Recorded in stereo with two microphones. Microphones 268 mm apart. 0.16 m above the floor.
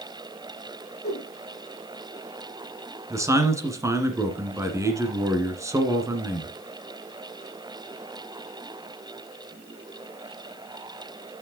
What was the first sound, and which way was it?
A whoosh, 40° left (ahead or behind).